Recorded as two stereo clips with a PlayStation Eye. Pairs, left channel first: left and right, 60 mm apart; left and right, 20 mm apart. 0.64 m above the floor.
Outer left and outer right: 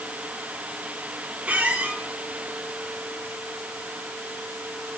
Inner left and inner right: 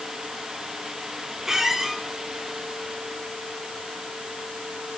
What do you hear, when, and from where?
1.4 s a squeak: 25° right (ahead or behind), 1.3 m